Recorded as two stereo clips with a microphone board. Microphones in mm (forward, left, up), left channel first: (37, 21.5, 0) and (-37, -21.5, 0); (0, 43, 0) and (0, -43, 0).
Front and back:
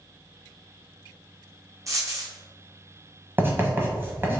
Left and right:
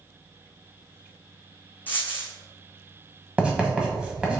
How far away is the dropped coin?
About 1.2 m.